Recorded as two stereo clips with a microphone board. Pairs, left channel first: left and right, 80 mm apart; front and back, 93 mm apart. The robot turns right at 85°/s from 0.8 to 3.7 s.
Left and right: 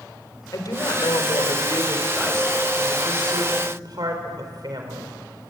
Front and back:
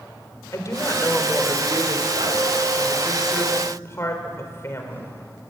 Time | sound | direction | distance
0.5 | a woman speaking | 55° left | 4 m